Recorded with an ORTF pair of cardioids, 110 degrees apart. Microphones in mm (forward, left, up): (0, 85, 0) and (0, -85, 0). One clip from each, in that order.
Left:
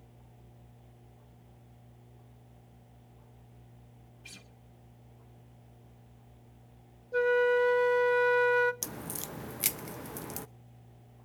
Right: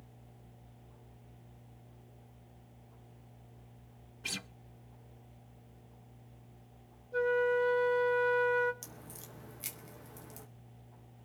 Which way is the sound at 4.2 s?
60° right.